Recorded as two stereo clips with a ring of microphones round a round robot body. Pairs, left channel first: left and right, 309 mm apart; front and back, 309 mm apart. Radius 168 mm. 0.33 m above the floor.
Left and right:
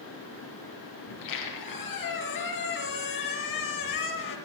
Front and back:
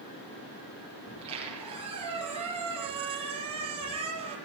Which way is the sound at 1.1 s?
105° left.